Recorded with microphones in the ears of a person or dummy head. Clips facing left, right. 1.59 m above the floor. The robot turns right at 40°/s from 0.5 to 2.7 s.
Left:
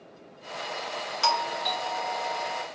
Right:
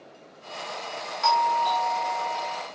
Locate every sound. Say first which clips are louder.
1.2 s a doorbell: right 6 dB; 140° left, 1.0 m; by 2.6 s 165° right, 1.0 m